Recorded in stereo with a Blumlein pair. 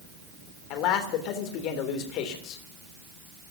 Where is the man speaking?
40° left, 3 m.